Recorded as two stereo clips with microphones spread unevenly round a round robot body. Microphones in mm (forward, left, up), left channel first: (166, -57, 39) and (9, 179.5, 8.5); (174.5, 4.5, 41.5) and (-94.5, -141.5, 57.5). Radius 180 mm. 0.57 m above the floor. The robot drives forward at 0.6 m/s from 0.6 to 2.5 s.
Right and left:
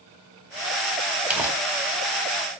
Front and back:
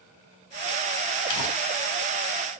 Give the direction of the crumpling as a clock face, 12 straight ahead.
11 o'clock.